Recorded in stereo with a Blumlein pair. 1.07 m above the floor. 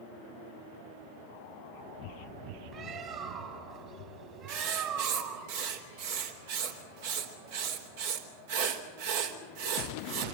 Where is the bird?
30° right, 4 m.